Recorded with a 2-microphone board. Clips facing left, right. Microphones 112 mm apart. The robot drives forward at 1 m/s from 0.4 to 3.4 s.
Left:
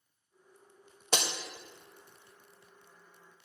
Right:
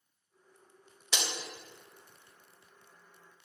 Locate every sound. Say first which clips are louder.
1.1 s breaking glass: left 4 dB; 45° left (ahead or behind), 0.8 m